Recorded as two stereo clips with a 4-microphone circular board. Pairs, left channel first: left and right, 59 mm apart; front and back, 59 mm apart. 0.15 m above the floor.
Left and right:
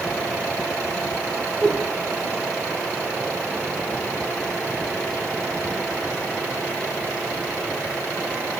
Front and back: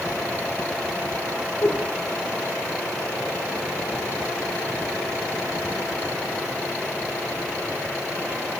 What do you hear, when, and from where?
1.6 s a whoosh: 15° right, 4.5 m